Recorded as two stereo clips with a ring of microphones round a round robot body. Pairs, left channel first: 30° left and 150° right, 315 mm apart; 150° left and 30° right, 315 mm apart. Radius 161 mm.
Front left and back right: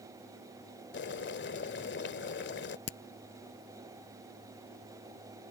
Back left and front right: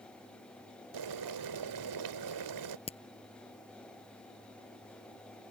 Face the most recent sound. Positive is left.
turn(degrees=75)